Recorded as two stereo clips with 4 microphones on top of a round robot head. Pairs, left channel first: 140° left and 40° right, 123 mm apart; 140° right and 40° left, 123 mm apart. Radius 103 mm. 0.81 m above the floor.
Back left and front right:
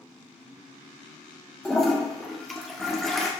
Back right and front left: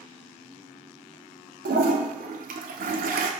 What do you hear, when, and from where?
1.6 s a toilet flushing: 50° left, 0.8 m